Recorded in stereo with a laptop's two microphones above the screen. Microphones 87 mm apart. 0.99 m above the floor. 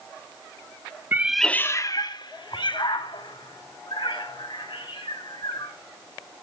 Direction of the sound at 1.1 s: 25° right (ahead or behind).